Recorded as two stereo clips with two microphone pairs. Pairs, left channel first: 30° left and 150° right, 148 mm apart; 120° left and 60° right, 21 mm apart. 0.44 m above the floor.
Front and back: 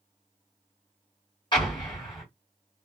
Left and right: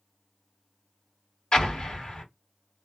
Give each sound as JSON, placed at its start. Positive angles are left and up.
{"t": 1.5, "sound": "an explosion", "azimuth_deg": 80, "distance_m": 1.5}